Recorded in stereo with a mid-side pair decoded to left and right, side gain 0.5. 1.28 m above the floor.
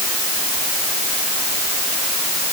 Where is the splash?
I don't hear a splash.